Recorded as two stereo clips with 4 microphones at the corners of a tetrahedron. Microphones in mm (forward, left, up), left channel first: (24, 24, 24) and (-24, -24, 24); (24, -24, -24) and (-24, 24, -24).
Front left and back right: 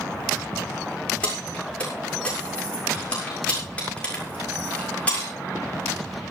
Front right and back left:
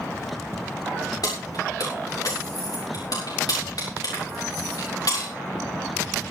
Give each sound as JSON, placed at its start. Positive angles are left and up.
{"t": 1.2, "sound": "keys jangling", "azimuth_deg": -25, "distance_m": 6.5}